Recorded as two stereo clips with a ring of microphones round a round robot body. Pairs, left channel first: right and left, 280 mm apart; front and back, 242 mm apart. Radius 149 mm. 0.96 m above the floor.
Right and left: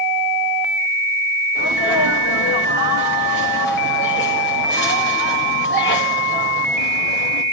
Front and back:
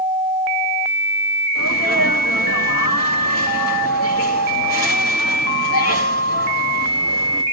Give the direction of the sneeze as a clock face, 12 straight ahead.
1 o'clock.